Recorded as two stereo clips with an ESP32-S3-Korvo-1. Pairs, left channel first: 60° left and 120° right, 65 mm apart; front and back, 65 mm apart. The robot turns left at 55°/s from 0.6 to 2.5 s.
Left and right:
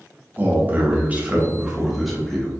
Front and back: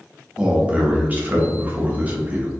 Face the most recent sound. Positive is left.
turn(degrees=130)